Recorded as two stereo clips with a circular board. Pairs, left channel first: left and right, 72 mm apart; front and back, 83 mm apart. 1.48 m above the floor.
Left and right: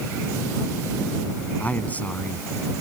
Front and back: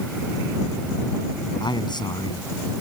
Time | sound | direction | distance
1.6 | a man speaking | 20° left | ?